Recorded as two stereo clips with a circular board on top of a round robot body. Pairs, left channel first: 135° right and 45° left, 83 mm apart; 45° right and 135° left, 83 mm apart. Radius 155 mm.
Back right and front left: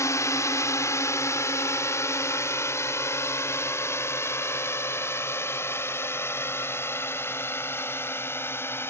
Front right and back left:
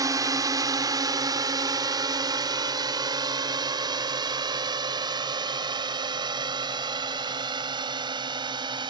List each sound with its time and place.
0.0 s a drone: 175° left; by 8.9 s 165° left